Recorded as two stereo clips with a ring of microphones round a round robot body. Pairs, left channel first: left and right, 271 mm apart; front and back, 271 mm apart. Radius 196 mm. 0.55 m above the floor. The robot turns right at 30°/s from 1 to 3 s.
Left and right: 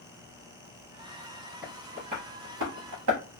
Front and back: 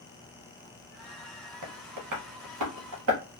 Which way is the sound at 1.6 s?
175° right.